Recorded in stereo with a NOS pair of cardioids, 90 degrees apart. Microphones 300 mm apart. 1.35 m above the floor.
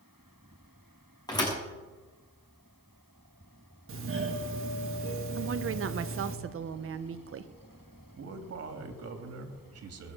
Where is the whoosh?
No whoosh in this recording.